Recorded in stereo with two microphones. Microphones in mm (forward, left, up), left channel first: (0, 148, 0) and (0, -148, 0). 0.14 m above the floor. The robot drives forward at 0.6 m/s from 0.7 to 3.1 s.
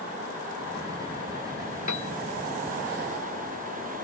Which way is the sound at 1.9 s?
75° left (ahead or behind).